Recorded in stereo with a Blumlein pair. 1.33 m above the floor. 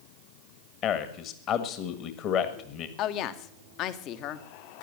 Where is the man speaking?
35° left, 1.7 m.